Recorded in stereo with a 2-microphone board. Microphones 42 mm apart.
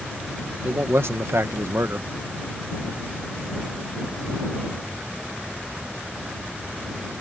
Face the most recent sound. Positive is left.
turn(degrees=-75)  # may be behind; listen again after turning